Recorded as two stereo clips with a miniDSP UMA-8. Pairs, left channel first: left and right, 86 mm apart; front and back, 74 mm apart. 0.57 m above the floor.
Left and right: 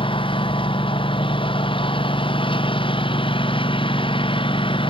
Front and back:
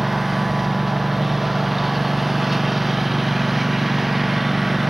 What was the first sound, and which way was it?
A lawn mower, 95° left.